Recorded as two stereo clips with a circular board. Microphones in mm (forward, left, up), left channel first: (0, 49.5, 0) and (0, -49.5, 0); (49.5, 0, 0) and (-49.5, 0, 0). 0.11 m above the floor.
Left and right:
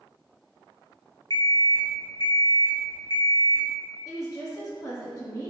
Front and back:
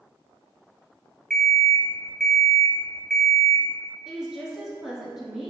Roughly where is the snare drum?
No snare drum in this recording.